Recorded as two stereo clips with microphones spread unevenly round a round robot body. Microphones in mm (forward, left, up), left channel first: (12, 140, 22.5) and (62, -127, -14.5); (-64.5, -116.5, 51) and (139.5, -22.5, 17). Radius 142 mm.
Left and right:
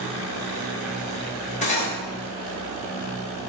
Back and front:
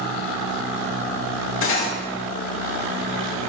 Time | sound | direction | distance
1.6 | cutlery clinking | 170° left | 0.8 m